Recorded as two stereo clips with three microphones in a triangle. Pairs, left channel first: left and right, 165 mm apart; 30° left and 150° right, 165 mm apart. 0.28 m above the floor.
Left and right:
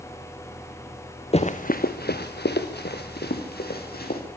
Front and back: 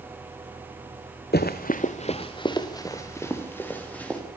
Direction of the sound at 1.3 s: 40° left.